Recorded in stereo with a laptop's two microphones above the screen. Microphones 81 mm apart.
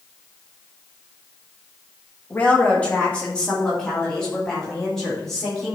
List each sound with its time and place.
2.3 s a woman speaking: 20° left (ahead or behind), 1.6 m; by 5.8 s 5° left (ahead or behind), 4 m